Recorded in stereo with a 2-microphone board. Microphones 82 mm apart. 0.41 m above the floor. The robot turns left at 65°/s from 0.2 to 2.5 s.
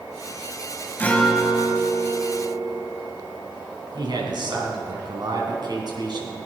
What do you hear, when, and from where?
1.0 s a guitar: 25° left, 1.9 m; by 2.9 s 70° right, 1.9 m
3.9 s a man speaking: 60° right (ahead or behind), 3.5 m